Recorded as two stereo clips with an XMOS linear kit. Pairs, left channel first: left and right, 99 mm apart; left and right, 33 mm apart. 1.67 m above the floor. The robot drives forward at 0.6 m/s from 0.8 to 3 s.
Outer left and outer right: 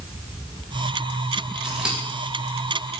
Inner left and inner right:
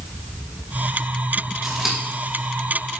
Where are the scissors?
10° right (ahead or behind), 2.5 m.